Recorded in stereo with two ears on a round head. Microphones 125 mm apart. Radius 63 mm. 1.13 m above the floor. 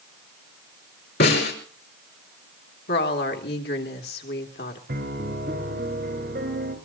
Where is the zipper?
No zipper in this recording.